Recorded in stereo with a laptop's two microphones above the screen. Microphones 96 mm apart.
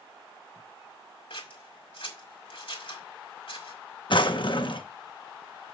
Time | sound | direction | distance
1.3 | scissors | 65° left (ahead or behind) | 1.7 m
4.1 | a drawer | 55° left (ahead or behind) | 0.6 m